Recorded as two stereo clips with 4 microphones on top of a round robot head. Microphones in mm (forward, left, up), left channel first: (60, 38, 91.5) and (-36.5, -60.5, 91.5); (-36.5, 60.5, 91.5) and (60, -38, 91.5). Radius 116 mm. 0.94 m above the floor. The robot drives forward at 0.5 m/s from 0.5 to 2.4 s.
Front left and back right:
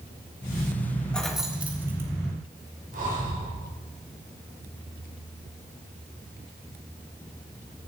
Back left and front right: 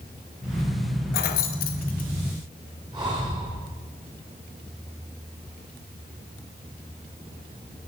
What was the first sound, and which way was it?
Keys jangling, 130° left.